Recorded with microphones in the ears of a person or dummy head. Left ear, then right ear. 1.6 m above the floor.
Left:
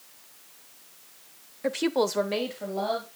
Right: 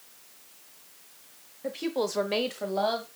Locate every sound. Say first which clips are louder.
1.6 s a woman speaking: left 4 dB; 60° left (ahead or behind), 0.8 m; by 3.1 s 50° right (ahead or behind), 1.5 m